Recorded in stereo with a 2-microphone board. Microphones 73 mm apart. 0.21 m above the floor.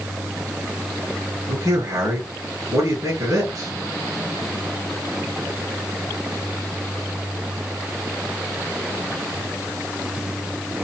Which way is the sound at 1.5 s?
55° right (ahead or behind).